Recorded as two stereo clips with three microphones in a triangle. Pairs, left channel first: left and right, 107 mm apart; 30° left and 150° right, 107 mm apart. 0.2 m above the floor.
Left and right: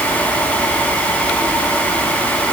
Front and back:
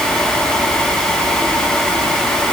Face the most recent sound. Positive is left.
No sound to turn to.